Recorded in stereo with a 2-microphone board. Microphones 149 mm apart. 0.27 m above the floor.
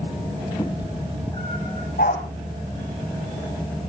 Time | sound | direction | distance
0.6 | a cat meowing | 25° left (ahead or behind) | 2.0 m
2.0 | a dog barking | 70° left (ahead or behind) | 4.5 m